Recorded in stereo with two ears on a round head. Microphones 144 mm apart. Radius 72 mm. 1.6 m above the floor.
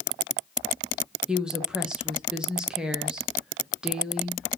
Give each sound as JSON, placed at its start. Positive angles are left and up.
{"t": 1.3, "sound": "a woman speaking", "side_deg": -5, "distance_m": 0.7}